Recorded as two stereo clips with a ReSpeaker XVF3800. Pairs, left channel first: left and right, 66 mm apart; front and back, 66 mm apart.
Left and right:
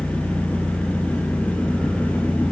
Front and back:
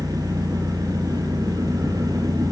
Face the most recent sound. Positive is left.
turn(degrees=165)